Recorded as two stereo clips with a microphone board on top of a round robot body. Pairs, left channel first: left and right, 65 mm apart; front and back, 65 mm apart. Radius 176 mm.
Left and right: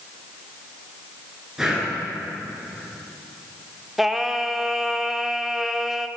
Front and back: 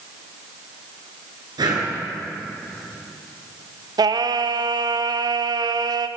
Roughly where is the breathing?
Behind.